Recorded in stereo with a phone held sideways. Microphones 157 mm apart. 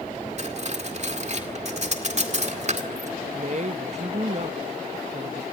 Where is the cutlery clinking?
45° right (ahead or behind), 2.0 m.